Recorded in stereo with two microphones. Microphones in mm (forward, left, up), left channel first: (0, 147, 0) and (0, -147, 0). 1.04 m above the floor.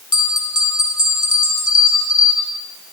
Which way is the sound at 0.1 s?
85° left.